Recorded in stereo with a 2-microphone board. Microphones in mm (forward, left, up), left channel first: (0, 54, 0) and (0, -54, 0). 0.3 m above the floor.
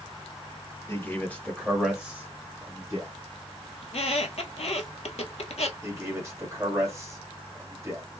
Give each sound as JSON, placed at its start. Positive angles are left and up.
{"t": 0.9, "sound": "a man speaking", "side_deg": 25, "distance_m": 1.3}
{"t": 3.8, "sound": "a squeak", "side_deg": 70, "distance_m": 0.7}
{"t": 5.8, "sound": "a man speaking", "side_deg": -25, "distance_m": 1.7}